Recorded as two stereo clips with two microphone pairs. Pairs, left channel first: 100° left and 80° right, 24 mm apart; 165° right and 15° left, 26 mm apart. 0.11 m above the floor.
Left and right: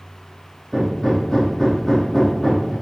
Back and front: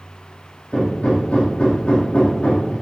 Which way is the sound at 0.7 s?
175° left.